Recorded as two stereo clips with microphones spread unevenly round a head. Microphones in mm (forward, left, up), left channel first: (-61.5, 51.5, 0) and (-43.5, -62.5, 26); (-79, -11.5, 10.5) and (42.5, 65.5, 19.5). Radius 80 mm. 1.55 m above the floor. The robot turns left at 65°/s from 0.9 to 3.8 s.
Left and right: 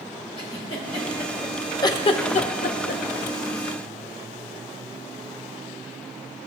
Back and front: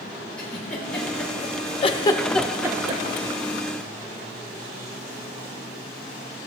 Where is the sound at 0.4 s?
130° left, 1.5 m; by 1.7 s 75° left, 1.5 m.